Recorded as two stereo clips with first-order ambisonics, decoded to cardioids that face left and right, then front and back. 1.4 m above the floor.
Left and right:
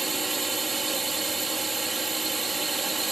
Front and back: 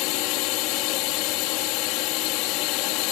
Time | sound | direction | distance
0.0 | a drone | 10° right | ?